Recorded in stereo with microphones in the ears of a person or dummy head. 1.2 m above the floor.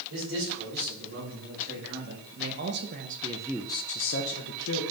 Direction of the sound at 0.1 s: 65° right (ahead or behind).